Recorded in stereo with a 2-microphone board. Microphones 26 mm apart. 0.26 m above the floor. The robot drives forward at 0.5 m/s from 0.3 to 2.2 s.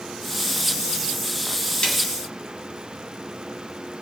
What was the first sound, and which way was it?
A snare drum, 45° left (ahead or behind).